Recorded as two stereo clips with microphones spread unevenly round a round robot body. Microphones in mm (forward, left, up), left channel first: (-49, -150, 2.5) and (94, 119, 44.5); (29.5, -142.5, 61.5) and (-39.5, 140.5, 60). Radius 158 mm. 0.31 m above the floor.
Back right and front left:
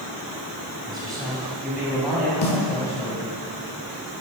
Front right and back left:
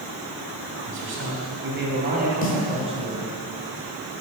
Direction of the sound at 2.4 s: 120° right.